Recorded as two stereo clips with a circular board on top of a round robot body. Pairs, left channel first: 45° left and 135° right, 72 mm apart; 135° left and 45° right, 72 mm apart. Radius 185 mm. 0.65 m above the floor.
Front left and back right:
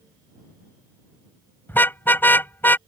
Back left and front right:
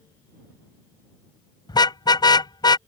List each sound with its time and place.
1.7 s a car horn: 110° left